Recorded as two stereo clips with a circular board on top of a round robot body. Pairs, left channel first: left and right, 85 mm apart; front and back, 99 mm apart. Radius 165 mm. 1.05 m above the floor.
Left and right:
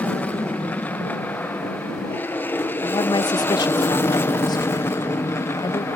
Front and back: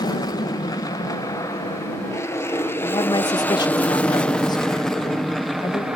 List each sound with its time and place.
0.0 s an aircraft: 20° left; by 6.0 s 100° left
2.8 s a woman speaking: 50° left